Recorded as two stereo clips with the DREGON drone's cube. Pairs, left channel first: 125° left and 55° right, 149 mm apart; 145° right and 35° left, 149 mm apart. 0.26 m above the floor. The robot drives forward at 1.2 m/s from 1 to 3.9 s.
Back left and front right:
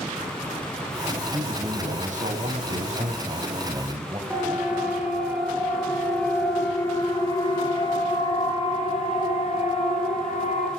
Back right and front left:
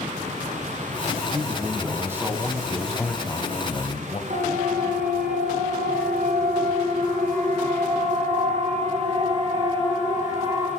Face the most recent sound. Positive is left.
turn(degrees=100)